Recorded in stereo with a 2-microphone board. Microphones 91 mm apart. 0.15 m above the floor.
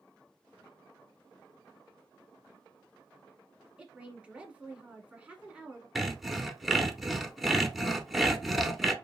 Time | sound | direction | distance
3.8 | a woman speaking | 15° right (ahead or behind) | 1.1 m
6.0 | sawing | centre (ahead or behind) | 0.6 m